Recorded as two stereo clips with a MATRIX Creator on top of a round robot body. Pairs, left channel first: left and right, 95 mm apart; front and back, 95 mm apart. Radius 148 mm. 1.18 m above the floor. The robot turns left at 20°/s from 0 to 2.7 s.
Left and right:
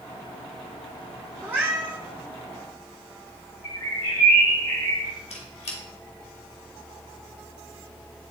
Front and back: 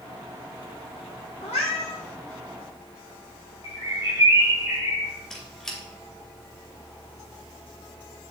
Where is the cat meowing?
20° right, 0.6 m; by 2.0 s 35° right, 0.6 m.